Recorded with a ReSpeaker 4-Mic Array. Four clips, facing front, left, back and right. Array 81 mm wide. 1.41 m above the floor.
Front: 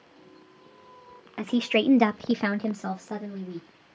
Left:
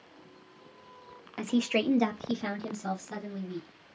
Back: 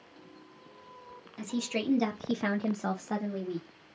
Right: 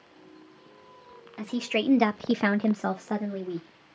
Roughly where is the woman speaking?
Ahead.